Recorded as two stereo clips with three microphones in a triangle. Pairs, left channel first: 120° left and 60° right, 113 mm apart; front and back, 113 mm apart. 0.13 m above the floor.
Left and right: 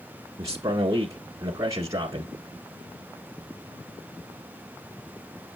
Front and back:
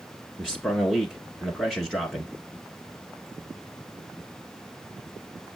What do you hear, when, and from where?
0.4 s a man speaking: 95° right, 1.5 m